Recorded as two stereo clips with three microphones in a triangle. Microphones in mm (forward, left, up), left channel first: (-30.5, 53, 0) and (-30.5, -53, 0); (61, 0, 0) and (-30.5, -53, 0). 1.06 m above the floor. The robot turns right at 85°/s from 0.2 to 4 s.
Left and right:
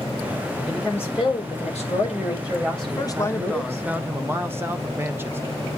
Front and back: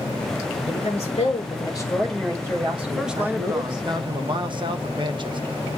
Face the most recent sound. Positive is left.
turn(degrees=-155)